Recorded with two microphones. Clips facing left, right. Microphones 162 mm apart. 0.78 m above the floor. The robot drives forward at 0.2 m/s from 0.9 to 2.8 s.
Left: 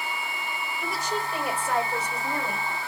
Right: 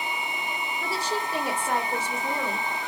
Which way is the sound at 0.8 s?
30° right (ahead or behind).